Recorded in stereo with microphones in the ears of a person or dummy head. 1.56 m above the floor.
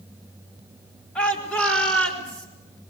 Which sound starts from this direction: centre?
A shout, at 1.1 s.